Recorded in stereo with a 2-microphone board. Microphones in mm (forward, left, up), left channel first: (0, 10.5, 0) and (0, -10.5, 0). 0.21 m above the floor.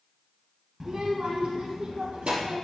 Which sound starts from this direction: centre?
A child speaking, at 0.8 s.